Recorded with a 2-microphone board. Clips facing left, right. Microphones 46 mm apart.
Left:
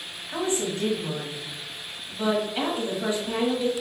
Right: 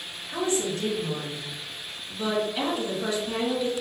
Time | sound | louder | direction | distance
0.3 | a woman speaking | even | 25° left (ahead or behind) | 1.0 m